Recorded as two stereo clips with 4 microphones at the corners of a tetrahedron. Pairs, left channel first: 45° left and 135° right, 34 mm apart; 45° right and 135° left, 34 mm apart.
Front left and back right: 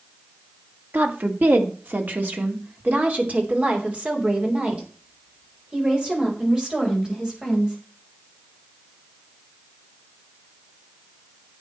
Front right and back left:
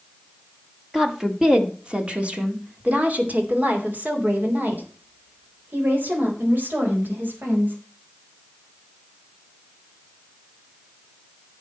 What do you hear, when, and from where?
0.9 s a woman speaking: 145° right, 2 m; by 7.8 s 155° left, 5 m